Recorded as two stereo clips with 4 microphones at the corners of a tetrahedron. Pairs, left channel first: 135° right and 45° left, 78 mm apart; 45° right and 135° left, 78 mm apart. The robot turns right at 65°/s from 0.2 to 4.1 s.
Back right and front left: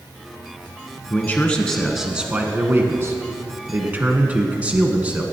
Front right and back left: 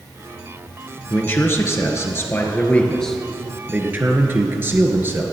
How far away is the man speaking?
About 1.6 m.